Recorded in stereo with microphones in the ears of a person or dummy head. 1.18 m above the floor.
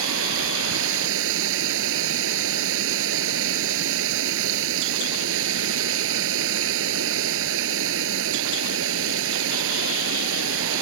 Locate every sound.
0.0 s running water: 75° right (ahead or behind)